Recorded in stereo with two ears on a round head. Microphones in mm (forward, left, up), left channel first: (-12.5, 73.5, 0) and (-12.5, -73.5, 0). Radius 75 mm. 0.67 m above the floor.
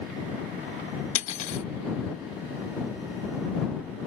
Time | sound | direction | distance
1.1 | cutlery clinking | 40° left (ahead or behind) | ?